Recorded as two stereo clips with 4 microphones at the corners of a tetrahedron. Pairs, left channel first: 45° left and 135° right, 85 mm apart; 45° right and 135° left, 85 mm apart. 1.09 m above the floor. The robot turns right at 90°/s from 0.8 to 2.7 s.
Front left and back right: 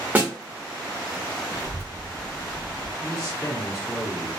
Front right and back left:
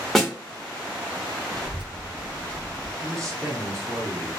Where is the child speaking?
95° left, 0.8 m; by 2.9 s 160° right, 0.8 m.